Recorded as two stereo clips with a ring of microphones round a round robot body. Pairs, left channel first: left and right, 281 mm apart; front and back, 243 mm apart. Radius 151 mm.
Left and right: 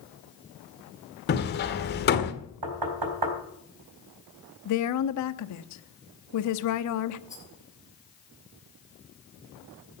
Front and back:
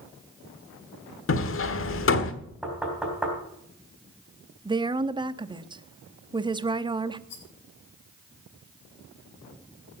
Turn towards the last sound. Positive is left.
turn(degrees=10)